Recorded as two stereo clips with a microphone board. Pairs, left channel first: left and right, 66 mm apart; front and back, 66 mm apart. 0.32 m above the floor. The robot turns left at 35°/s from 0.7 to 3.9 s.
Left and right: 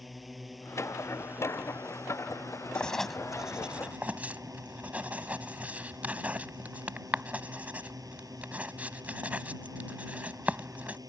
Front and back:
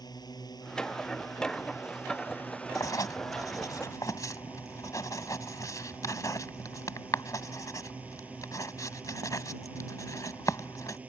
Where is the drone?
Straight ahead; by 11.1 s 115° right.